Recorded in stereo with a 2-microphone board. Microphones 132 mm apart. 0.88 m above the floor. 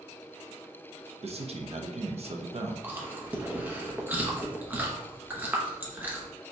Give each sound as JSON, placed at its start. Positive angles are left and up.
{"t": 1.2, "sound": "a man speaking", "side_deg": -55, "distance_m": 0.6}
{"t": 2.8, "sound": "chewing", "side_deg": -15, "distance_m": 0.8}